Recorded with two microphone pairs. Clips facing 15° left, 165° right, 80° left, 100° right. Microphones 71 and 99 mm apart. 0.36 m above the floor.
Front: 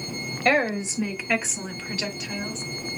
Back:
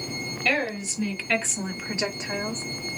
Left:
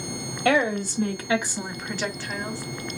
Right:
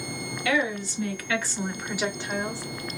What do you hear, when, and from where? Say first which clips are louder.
0.5 s a woman speaking: front 5 dB, left 5 dB; 50° left, 1.5 m; by 2.6 s 145° right, 1.3 m